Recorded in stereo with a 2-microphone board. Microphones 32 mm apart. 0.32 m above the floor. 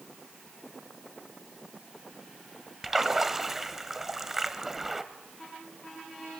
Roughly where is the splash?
Centre.